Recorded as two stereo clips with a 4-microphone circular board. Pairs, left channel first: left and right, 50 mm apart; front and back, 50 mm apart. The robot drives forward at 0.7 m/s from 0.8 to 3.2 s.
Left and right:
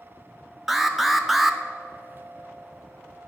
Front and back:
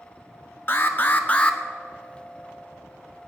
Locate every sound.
0.7 s an alarm: 5° right, 1.2 m; by 1.6 s 10° right, 0.8 m